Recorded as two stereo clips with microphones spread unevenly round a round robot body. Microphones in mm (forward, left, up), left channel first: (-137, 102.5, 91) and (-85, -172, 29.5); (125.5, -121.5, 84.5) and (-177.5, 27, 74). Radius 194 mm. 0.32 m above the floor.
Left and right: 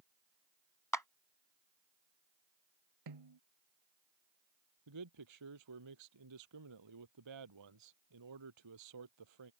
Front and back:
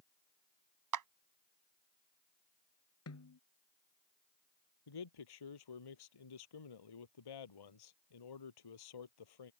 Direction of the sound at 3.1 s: 75° right.